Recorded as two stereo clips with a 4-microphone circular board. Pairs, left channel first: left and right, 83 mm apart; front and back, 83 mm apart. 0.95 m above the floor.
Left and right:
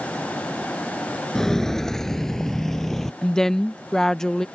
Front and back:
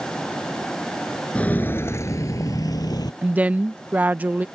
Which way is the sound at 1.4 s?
20° left.